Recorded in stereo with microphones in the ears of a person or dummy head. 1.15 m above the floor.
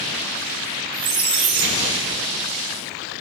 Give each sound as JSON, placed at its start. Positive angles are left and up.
{"t": 0.9, "sound": "a squeak", "side_deg": -25, "distance_m": 0.9}